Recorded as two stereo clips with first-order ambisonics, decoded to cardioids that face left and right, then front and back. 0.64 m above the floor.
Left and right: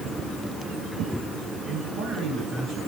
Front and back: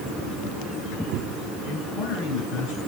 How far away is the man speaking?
About 10 m.